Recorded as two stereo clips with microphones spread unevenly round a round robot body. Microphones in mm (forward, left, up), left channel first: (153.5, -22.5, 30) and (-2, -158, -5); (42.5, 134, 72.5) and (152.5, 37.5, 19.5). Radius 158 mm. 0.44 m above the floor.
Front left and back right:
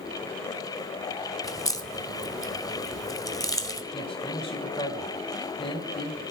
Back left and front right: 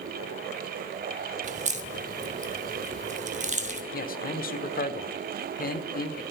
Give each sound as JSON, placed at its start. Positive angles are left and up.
{"t": 1.4, "sound": "a crack", "azimuth_deg": -35, "distance_m": 1.8}
{"t": 3.9, "sound": "a man speaking", "azimuth_deg": 115, "distance_m": 1.4}